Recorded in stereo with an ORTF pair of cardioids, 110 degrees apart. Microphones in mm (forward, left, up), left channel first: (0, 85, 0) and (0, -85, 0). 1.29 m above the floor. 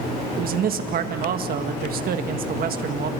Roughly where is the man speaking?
Ahead right.